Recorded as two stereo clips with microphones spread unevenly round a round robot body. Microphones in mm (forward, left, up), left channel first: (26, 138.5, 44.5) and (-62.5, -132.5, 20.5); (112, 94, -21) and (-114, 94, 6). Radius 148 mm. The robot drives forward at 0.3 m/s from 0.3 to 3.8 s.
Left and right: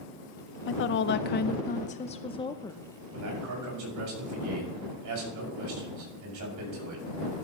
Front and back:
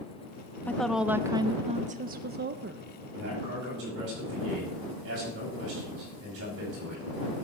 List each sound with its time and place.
0.7 s a woman speaking: 65° left, 0.6 m; by 2.8 s 150° left, 0.8 m
3.1 s a man speaking: 130° right, 6.5 m